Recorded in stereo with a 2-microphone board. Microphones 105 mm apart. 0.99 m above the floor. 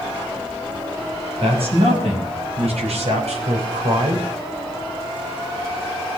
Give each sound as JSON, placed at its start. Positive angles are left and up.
{"t": 1.4, "sound": "a man speaking", "side_deg": -60, "distance_m": 5.5}